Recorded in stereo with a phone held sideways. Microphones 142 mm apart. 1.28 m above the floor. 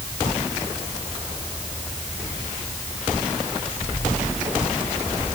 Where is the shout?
I don't hear a shout.